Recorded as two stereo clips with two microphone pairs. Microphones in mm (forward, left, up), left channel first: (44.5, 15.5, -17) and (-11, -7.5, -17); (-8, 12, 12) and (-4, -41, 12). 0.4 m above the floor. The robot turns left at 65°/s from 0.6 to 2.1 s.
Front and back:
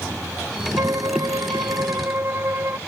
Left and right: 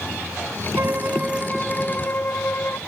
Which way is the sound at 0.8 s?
125° right.